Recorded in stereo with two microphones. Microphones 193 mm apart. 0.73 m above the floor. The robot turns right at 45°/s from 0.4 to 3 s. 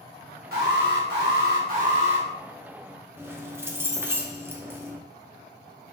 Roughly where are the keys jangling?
Centre.